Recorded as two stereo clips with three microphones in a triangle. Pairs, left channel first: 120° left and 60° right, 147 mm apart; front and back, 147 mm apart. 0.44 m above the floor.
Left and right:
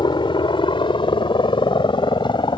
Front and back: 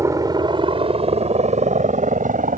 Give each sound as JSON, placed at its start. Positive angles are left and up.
{"t": 0.0, "sound": "a helicopter", "azimuth_deg": 130}